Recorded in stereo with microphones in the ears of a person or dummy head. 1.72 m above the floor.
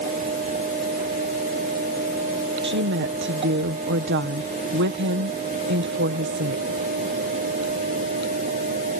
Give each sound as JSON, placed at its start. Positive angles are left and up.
{"t": 2.6, "sound": "a woman speaking", "side_deg": -60}